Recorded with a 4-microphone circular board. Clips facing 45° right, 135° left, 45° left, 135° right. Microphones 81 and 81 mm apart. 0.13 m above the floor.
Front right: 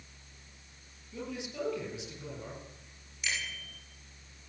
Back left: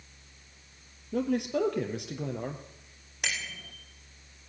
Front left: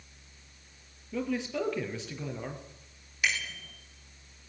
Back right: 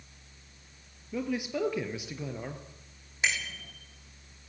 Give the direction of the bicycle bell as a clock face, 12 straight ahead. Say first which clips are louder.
Back left 2 dB, even; 7 o'clock.